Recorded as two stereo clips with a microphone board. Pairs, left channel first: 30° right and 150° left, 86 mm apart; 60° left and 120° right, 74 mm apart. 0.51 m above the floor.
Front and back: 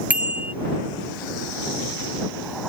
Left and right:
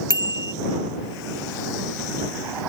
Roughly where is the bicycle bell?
Left.